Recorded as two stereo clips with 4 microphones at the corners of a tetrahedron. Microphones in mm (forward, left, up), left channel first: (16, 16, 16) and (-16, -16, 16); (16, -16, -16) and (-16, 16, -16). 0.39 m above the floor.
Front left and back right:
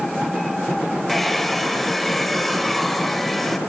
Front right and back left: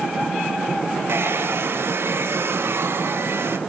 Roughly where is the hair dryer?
Behind left.